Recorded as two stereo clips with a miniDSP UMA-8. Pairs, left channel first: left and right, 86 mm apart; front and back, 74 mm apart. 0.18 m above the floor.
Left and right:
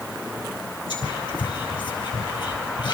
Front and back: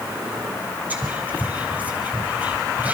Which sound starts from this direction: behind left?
Whispering, at 0.9 s.